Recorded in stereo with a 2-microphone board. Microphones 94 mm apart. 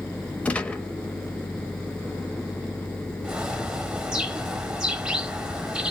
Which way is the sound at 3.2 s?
10° right (ahead or behind).